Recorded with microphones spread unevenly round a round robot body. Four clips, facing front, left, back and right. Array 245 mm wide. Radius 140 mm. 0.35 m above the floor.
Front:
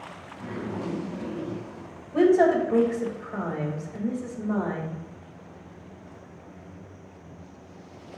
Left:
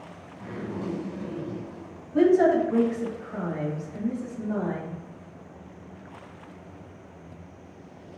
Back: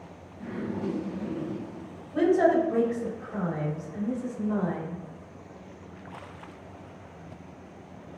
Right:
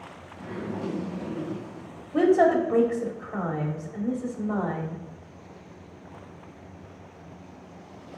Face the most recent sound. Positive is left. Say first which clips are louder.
# even, front 3 dB
turn(degrees=-60)